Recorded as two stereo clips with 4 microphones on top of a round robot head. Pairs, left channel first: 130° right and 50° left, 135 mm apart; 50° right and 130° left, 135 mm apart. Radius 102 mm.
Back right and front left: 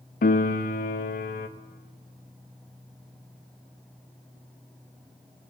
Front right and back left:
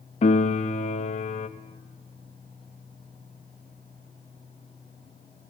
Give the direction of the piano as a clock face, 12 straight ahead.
3 o'clock.